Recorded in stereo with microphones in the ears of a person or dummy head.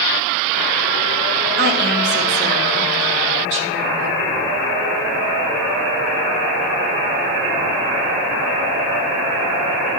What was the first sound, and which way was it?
A woman speaking, 50° right (ahead or behind).